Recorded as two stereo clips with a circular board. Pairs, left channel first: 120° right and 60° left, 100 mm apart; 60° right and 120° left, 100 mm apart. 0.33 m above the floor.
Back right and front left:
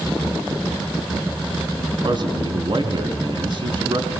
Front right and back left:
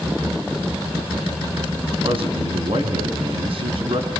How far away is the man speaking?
About 4 m.